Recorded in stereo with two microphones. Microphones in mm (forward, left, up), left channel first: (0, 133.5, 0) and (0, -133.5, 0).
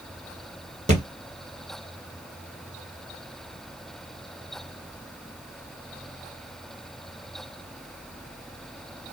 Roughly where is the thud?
Right.